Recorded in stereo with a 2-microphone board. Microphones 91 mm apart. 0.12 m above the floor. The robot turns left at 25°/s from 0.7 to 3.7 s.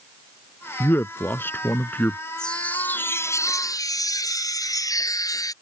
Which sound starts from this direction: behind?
A chime, at 2.4 s.